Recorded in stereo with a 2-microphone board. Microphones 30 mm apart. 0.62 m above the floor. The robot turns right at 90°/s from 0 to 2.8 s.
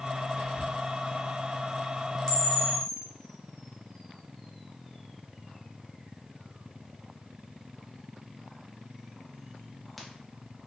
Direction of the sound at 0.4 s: 85° left.